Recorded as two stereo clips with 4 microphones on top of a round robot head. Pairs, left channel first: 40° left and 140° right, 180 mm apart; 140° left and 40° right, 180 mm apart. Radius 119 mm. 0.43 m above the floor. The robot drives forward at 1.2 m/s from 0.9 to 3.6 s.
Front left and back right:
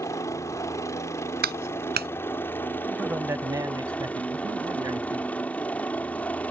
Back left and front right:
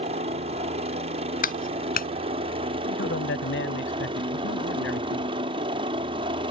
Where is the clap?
175° right; by 2.1 s straight behind.